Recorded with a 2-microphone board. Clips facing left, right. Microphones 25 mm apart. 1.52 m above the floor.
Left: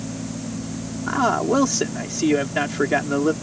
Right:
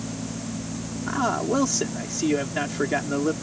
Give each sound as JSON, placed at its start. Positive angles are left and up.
{"t": 1.1, "sound": "a man speaking", "side_deg": 20}